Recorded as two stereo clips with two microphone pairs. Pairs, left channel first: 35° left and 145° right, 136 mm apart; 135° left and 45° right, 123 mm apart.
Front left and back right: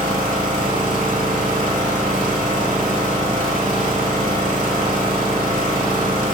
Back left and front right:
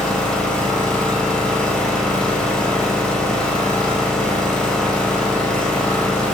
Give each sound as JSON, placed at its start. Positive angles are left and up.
{"t": 0.0, "sound": "an engine running", "azimuth_deg": -140, "distance_m": 0.7}